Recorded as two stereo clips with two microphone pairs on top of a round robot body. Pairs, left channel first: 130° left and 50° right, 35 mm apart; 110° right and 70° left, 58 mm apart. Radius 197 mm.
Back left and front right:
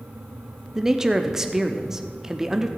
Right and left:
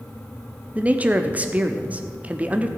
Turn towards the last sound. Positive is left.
turn(degrees=25)